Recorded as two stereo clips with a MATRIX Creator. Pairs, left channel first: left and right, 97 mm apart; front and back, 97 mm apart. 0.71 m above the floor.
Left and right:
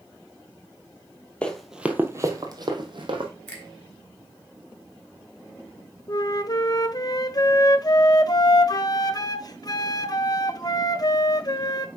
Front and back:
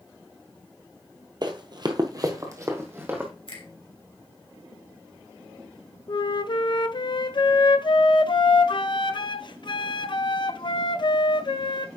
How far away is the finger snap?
About 2.5 m.